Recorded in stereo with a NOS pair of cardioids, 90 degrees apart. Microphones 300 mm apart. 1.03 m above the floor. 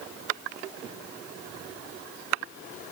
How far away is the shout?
No shout in this recording.